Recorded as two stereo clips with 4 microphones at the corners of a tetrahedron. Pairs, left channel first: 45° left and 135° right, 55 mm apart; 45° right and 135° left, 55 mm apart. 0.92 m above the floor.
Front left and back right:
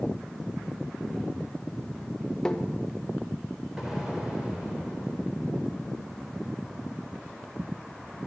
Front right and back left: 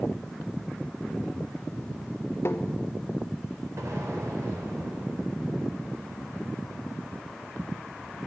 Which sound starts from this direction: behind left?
An explosion, at 3.8 s.